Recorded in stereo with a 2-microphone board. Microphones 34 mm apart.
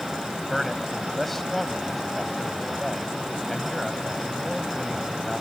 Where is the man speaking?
5° left (ahead or behind).